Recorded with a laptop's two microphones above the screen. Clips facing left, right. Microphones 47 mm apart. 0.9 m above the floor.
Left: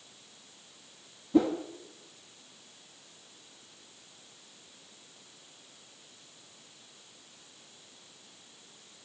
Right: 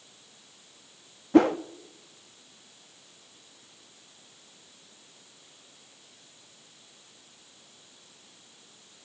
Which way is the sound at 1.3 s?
70° right (ahead or behind).